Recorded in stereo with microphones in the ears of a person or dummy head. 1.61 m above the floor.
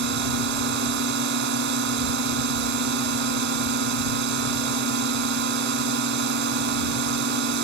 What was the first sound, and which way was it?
A drone, 65° right (ahead or behind).